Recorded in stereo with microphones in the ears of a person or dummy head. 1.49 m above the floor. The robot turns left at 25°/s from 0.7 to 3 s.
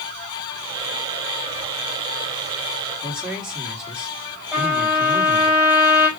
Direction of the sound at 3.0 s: 5° right (ahead or behind).